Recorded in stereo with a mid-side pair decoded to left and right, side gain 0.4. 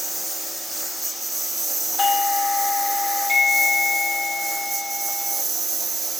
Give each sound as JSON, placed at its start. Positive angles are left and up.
{"t": 0.0, "sound": "a lawn mower", "azimuth_deg": -15}
{"t": 2.0, "sound": "a doorbell", "azimuth_deg": 35}